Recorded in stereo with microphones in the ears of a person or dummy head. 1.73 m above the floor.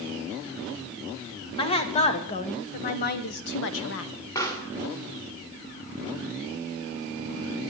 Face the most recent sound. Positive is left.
turn(degrees=15)  # may be behind; listen again after turning